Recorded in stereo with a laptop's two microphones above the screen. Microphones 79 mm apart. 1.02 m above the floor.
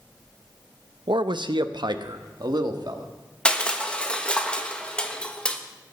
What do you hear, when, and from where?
1.1 s a man speaking: 80° right, 0.6 m; by 3.1 s 60° right (ahead or behind), 1.7 m
3.5 s crushing: 15° left (ahead or behind), 1.2 m